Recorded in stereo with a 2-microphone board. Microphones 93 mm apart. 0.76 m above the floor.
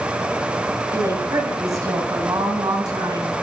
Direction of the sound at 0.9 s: 35° right (ahead or behind).